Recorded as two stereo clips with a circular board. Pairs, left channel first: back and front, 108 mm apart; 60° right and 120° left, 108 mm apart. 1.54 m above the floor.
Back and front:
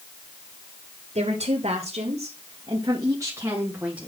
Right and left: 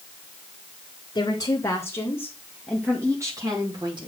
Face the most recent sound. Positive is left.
turn(degrees=80)